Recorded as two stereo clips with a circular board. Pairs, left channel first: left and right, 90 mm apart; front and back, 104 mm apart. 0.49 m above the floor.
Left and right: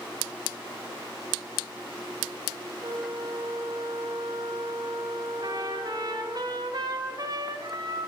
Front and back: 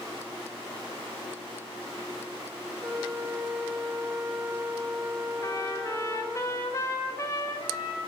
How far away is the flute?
About 1.7 m.